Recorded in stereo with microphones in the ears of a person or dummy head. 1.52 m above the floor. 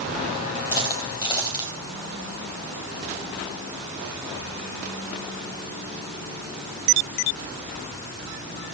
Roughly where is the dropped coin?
Left.